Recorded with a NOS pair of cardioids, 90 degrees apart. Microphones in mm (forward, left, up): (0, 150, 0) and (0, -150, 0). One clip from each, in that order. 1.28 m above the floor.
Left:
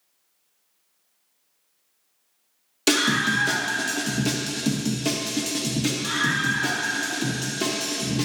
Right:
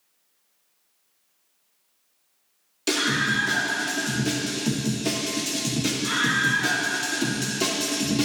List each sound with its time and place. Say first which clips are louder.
2.9 s a scream: left 2 dB; 50° left, 2 m; by 8.2 s 15° right, 3 m